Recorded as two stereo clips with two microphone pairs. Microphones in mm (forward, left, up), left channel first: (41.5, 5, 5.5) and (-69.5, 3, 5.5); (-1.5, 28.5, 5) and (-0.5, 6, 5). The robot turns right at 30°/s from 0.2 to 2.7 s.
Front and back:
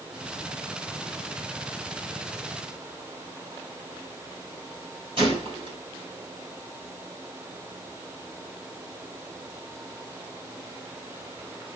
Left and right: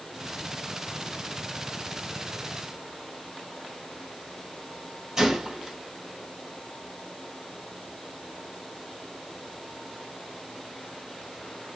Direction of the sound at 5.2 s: 155° right.